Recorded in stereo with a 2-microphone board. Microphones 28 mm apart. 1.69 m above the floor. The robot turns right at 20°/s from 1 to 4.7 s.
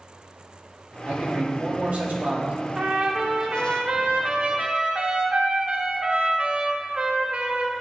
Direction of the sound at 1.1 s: 65° right (ahead or behind).